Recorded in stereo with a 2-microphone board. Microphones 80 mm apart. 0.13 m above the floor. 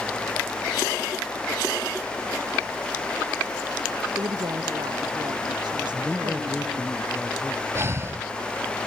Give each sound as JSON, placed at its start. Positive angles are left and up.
{"t": 4.2, "sound": "a woman speaking", "side_deg": -50}
{"t": 5.9, "sound": "a man speaking", "side_deg": 5}
{"t": 7.8, "sound": "breathing", "side_deg": -35}